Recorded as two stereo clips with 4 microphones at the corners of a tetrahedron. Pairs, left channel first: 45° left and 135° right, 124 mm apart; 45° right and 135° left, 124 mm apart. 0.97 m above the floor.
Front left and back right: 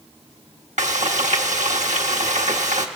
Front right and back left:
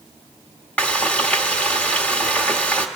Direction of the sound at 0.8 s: 125° right.